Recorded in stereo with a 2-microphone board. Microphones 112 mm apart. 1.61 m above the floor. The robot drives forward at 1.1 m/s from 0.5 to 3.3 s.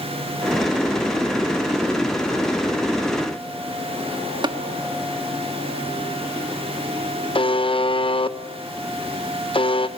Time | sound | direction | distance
4.4 | tapping | 45° right (ahead or behind) | 1.4 m
7.3 | a buzzer | 50° left (ahead or behind) | 1.0 m